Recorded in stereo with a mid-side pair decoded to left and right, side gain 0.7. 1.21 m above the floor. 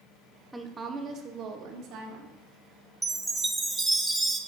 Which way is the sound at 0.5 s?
5° right.